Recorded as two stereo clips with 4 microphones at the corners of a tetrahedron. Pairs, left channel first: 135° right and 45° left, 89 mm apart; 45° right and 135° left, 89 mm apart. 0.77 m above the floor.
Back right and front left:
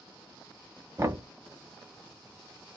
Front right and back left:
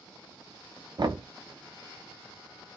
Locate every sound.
1.0 s knocking: 100° left, 0.6 m